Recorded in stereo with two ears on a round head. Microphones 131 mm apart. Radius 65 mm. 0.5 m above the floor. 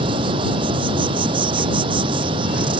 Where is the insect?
35° right (ahead or behind).